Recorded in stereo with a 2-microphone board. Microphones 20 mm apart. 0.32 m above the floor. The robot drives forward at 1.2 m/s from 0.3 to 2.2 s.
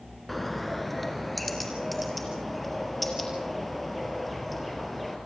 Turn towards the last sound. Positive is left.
turn(degrees=0)  # may be behind; listen again after turning